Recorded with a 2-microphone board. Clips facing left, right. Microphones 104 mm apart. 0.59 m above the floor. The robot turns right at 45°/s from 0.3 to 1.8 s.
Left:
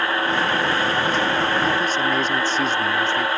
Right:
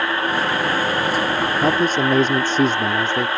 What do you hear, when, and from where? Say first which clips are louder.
1.6 s a man speaking: right 3 dB; 50° right (ahead or behind); by 3.3 s 45° right (ahead or behind)